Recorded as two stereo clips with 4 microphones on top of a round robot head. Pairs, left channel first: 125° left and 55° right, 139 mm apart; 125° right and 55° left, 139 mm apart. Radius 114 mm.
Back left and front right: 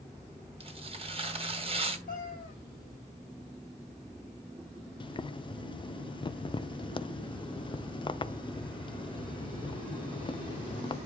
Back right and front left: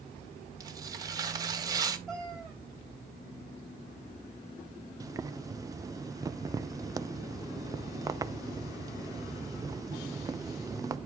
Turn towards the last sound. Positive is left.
turn(degrees=105)